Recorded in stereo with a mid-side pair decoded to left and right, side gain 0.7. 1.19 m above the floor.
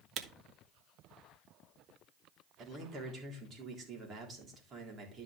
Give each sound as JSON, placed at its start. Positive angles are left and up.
{"t": 0.2, "sound": "a camera shutter", "azimuth_deg": -45, "distance_m": 1.3}
{"t": 2.6, "sound": "a man speaking", "azimuth_deg": -35, "distance_m": 4.0}